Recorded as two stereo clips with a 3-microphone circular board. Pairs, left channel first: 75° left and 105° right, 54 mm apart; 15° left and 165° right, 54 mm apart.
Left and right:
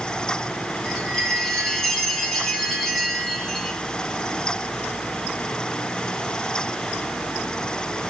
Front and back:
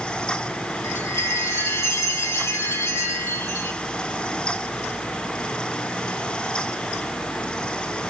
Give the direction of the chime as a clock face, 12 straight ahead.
12 o'clock.